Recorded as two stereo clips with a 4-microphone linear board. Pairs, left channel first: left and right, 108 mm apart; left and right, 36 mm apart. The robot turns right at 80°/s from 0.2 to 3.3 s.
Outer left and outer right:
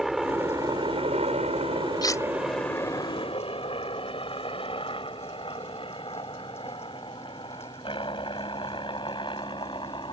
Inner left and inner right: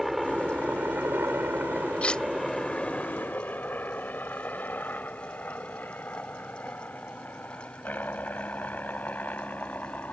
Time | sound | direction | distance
0.0 | a helicopter | 5° right (ahead or behind) | ?
2.0 | cutlery clinking | 40° left (ahead or behind) | ?